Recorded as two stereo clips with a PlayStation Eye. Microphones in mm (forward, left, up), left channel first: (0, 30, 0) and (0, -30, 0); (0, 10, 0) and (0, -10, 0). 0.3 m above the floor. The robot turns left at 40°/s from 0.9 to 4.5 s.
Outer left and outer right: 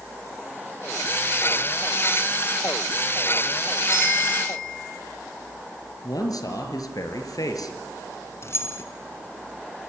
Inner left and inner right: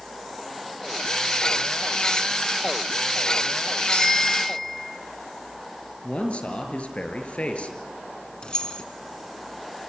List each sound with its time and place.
3.9 s a bicycle bell: 65° left (ahead or behind), 7 m; by 4.9 s 85° left, 7 m
6.0 s a man speaking: 80° left, 5 m
8.4 s keys jangling: 45° left (ahead or behind), 2.5 m